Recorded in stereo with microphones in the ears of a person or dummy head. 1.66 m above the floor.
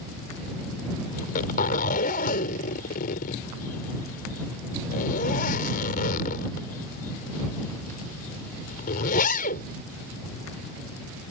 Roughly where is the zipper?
Left.